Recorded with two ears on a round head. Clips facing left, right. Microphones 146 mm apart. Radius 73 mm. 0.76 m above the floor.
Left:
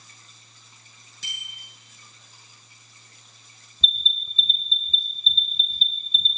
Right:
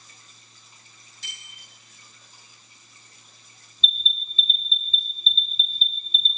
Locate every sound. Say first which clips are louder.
1.2 s a bicycle bell: left 3 dB; 65° left (ahead or behind), 7.5 m
3.8 s an alarm: even; 85° left, 2.5 m